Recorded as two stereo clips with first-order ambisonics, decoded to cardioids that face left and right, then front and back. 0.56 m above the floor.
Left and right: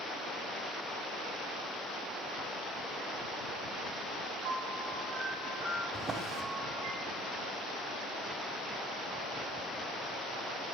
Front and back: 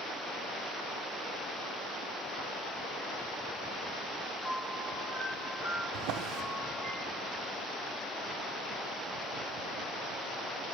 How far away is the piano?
About 2.5 m.